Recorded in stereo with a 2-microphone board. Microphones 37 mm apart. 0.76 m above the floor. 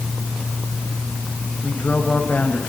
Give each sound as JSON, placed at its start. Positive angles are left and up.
{"t": 1.6, "sound": "a woman speaking", "side_deg": 50, "distance_m": 4.5}